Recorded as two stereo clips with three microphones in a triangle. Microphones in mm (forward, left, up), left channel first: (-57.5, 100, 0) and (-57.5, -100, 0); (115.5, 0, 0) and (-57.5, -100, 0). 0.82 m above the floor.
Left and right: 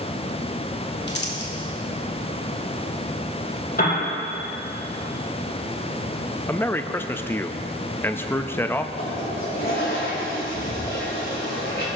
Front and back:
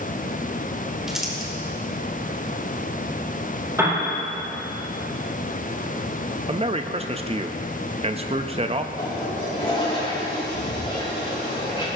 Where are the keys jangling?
No keys jangling in this recording.